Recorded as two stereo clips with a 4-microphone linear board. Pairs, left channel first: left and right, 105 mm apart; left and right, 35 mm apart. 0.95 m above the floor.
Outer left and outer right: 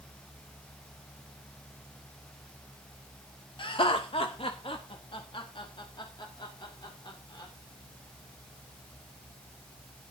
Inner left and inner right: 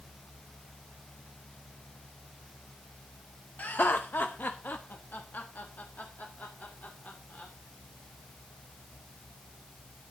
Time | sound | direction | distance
3.6 | laughter | 55° left (ahead or behind) | 0.7 m